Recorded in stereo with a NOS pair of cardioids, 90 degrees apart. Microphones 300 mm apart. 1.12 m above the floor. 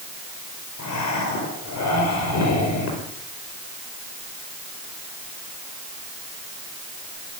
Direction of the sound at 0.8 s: 65° left.